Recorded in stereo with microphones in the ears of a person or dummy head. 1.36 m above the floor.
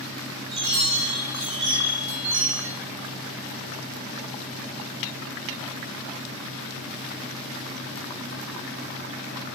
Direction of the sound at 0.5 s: 75° right (ahead or behind).